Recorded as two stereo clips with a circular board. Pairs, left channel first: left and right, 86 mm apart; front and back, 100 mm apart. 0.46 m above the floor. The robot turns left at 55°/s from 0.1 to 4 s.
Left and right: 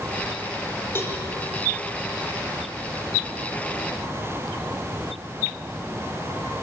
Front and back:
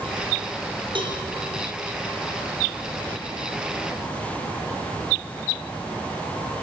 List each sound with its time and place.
0.9 s a cowbell: 150° left, 4 m; by 1.2 s 140° left, 4 m